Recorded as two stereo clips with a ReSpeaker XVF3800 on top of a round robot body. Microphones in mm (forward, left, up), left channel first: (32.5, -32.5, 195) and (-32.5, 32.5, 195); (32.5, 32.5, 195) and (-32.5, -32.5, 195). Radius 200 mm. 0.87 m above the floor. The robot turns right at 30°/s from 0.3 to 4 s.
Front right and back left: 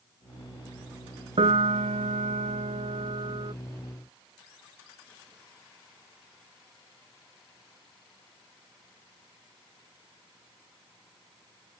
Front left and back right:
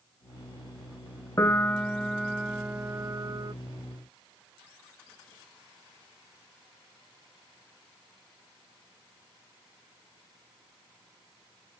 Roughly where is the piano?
Left.